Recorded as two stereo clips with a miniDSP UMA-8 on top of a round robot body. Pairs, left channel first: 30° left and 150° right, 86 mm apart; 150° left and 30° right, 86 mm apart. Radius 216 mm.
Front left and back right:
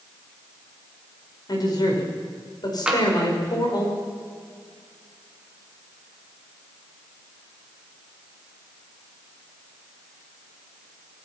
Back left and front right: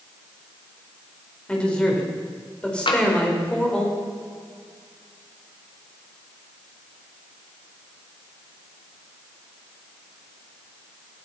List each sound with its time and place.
1.5 s a man speaking: 70° left, 5 m
2.9 s tapping: 130° left, 3 m